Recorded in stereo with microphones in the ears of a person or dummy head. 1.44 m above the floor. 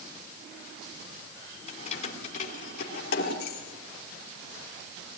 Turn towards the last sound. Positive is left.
turn(degrees=65)  # may be behind; listen again after turning